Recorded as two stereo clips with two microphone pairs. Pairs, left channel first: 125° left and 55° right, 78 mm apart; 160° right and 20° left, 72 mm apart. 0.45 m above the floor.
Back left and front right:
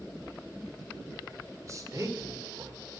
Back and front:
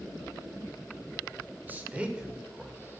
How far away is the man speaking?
About 1.6 m.